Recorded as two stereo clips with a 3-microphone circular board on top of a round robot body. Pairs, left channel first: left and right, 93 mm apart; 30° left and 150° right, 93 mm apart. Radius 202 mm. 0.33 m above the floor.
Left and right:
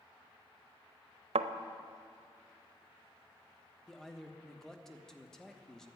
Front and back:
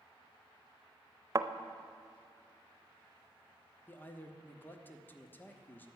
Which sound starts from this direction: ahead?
A man speaking, at 3.9 s.